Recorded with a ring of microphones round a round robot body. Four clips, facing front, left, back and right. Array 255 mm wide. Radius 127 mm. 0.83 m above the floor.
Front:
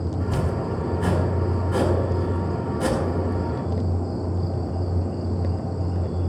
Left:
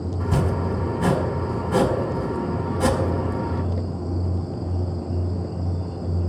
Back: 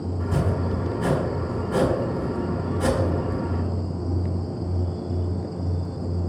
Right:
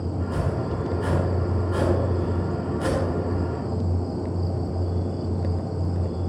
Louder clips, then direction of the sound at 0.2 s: Left 5 dB, back 1 dB; 90° left.